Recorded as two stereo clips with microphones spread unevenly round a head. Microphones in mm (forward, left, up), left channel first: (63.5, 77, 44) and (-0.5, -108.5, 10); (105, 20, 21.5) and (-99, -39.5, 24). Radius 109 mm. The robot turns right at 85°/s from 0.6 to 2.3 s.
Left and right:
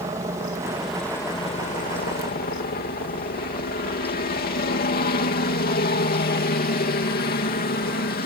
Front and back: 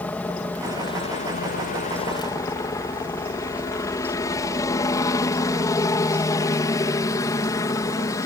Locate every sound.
0.0 s a helicopter: 60° right; by 8.3 s 85° left